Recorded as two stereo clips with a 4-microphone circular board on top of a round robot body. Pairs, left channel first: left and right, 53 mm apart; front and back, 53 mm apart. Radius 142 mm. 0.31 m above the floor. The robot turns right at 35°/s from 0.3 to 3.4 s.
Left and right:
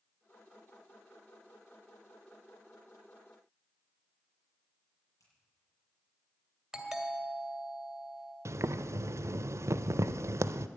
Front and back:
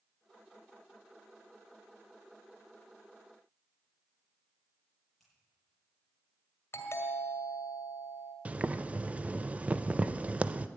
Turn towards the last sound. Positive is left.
turn(degrees=-115)